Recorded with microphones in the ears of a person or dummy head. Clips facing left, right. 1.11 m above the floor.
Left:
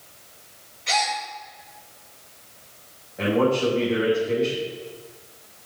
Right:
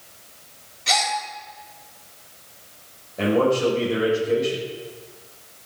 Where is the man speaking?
55° right (ahead or behind), 4.5 m.